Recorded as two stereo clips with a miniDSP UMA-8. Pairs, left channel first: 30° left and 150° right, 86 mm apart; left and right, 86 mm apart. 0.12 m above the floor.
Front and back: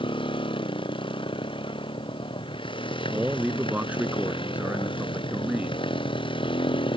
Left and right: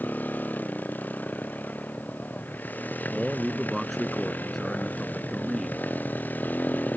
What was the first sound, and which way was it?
A motorcycle, 20° left.